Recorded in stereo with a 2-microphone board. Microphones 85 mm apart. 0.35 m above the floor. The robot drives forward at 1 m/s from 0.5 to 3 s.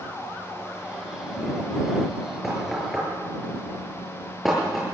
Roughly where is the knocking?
Centre.